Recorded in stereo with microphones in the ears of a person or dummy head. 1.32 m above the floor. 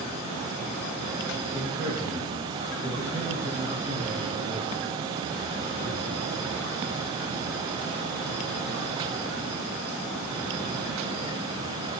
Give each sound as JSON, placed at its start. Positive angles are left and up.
{"t": 1.5, "sound": "a man speaking", "side_deg": -20, "distance_m": 1.8}